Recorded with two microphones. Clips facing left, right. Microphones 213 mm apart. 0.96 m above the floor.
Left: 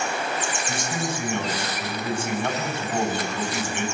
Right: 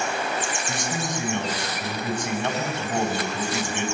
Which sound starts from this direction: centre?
A man speaking, at 0.7 s.